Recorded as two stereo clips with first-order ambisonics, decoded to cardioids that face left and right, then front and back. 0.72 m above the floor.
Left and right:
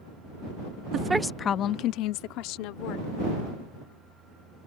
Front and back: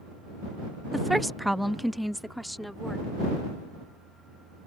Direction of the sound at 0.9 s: 95° right.